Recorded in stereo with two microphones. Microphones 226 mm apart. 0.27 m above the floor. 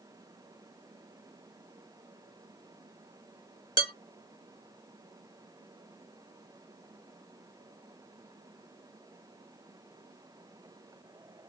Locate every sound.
3.8 s dishes clattering: 15° right (ahead or behind), 1.1 m